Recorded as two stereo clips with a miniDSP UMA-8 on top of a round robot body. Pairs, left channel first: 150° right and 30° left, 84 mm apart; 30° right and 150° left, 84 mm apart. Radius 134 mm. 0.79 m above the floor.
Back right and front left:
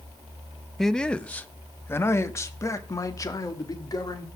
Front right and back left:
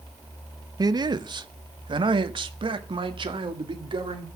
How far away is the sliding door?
No sliding door in this recording.